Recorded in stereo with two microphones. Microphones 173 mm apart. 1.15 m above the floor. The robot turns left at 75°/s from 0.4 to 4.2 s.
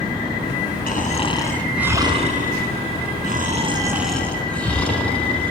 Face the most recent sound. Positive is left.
turn(degrees=175)